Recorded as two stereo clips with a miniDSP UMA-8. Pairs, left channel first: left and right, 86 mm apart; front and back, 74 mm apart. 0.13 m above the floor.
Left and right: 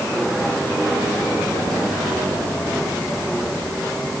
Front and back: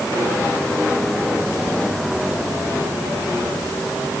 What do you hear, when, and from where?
Only background noise.